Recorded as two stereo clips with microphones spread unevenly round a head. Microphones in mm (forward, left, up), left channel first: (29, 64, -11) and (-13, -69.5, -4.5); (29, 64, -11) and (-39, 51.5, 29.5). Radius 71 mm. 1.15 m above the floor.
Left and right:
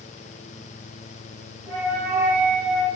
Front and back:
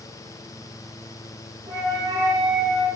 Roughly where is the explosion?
I don't hear an explosion.